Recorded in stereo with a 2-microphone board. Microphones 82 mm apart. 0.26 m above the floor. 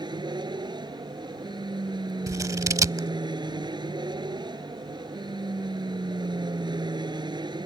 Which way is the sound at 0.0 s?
60° right (ahead or behind).